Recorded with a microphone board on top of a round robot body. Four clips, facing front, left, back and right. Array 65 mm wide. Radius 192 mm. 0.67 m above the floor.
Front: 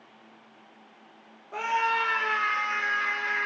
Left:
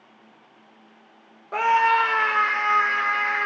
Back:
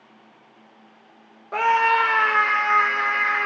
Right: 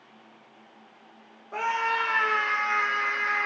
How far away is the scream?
About 1.0 m.